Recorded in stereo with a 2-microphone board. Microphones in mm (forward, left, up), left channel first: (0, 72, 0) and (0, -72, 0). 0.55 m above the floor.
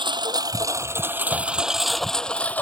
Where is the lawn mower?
35° right (ahead or behind); by 2.6 s 10° left (ahead or behind).